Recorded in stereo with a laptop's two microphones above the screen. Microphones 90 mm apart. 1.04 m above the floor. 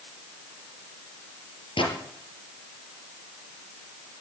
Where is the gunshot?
75° left (ahead or behind), 5 m.